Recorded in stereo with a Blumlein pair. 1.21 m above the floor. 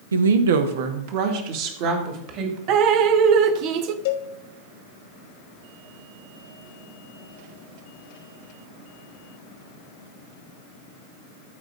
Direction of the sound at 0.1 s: 70° right.